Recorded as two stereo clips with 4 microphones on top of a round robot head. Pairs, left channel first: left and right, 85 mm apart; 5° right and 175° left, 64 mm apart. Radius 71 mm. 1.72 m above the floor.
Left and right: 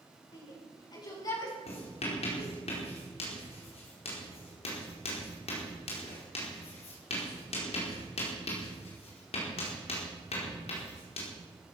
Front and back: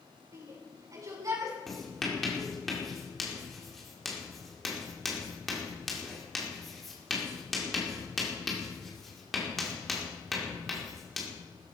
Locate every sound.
0.3 s a shout: 130° left, 6.5 m; by 1.6 s 135° left, 6.5 m
1.7 s writing: 80° left, 5 m